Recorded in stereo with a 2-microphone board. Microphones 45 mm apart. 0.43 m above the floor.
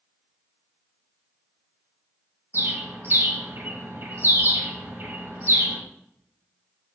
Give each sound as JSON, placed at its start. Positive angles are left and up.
{"t": 2.5, "sound": "a bird", "side_deg": -60, "distance_m": 0.6}